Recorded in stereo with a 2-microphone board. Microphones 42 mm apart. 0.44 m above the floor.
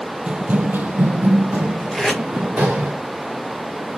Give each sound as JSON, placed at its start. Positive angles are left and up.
{"t": 0.3, "sound": "running footsteps", "side_deg": -30, "distance_m": 0.6}
{"t": 1.9, "sound": "tape being pulled", "side_deg": 5, "distance_m": 1.9}